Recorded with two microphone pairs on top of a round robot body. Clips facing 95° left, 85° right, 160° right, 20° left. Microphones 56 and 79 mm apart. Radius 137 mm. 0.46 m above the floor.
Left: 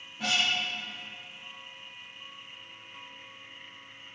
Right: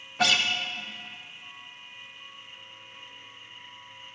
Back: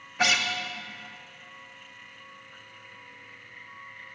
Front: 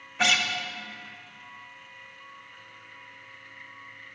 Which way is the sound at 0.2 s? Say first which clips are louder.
Right 5 dB, even; 80° right.